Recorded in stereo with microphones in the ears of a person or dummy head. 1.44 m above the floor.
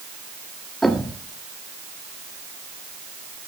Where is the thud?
Centre (ahead or behind), 1.4 m.